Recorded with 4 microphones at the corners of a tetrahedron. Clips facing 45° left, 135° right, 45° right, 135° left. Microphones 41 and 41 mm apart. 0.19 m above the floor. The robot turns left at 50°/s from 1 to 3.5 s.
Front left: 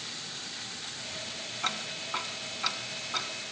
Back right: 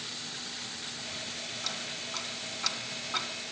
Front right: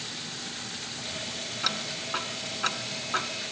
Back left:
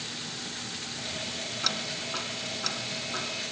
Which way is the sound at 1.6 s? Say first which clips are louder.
Front left 7 dB, front right 2 dB; 30° left.